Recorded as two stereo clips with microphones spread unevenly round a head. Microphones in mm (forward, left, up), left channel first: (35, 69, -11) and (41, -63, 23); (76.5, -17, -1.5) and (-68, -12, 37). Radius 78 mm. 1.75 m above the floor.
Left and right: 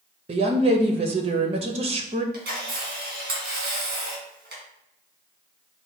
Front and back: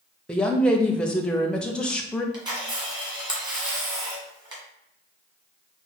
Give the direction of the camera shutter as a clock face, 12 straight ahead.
4 o'clock.